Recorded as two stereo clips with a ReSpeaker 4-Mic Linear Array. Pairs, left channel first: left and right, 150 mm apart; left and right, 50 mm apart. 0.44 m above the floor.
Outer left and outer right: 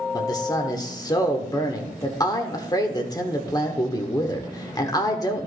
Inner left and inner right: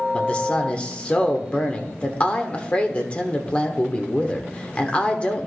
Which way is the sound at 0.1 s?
25° left (ahead or behind).